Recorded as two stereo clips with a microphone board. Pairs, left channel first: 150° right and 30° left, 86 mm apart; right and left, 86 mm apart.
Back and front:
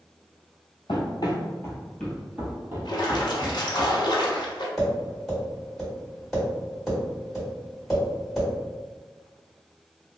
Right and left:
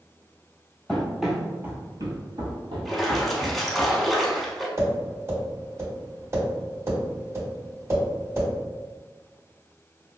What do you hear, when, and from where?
0.9 s running footsteps: 175° right, 1.0 m; by 3.9 s 65° left, 1.6 m
2.9 s a splash: straight behind, 0.7 m
4.8 s tapping: 120° left, 1.8 m